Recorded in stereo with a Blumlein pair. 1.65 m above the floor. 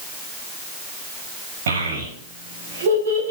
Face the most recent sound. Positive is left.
turn(degrees=-65)